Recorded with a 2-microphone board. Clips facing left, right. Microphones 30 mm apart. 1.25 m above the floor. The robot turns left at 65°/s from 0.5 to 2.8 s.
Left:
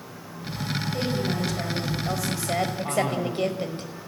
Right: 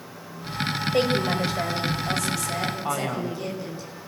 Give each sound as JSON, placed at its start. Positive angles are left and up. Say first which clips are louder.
{"t": 0.9, "sound": "a woman speaking", "louder": "right 6 dB", "azimuth_deg": -110, "distance_m": 5.0}
{"t": 2.9, "sound": "a man speaking", "louder": "left 2 dB", "side_deg": -20, "distance_m": 5.5}